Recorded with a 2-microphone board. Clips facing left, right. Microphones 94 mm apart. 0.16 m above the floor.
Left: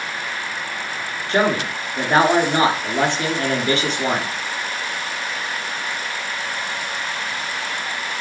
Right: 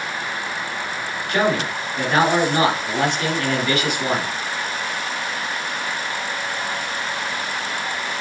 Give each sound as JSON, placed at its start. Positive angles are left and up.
{"t": 1.3, "sound": "a man speaking", "side_deg": 30, "distance_m": 1.8}